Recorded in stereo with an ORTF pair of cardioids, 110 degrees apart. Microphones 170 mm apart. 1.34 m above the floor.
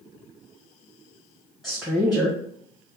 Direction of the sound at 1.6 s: Straight ahead.